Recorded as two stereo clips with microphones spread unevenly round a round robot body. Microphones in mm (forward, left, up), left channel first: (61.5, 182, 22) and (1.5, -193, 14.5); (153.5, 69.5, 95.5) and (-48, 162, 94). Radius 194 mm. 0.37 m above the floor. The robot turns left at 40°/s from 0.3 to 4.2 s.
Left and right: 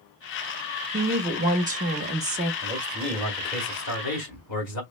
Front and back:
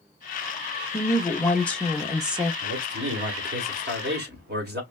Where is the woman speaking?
70° right, 0.8 m; by 2.5 s 135° right, 0.8 m.